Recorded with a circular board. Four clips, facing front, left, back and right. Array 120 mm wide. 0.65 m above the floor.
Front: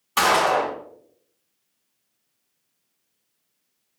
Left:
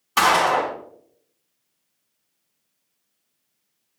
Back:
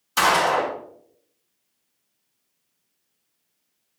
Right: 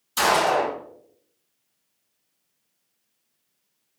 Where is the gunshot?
65° left, 3.5 m.